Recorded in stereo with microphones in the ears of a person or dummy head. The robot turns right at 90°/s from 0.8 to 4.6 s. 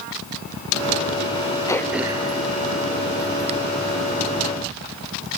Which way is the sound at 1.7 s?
15° left (ahead or behind).